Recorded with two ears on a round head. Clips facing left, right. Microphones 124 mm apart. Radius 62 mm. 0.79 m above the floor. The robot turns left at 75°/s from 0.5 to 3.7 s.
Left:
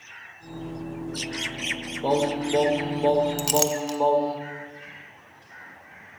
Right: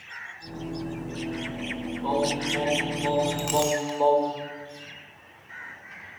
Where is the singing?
130° left, 1.0 m; by 4.4 s 5° left, 1.0 m.